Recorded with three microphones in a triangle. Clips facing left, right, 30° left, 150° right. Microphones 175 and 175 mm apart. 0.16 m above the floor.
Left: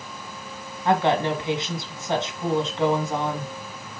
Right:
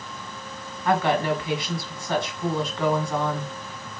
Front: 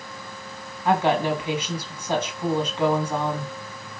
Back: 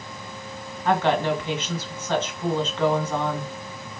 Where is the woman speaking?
85° left, 1.3 m.